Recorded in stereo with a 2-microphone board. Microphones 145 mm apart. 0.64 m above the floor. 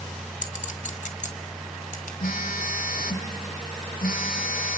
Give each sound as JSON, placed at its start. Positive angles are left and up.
{"t": 0.4, "sound": "a clink", "side_deg": 60, "distance_m": 2.0}
{"t": 2.2, "sound": "a phone buzzing", "side_deg": 80, "distance_m": 1.9}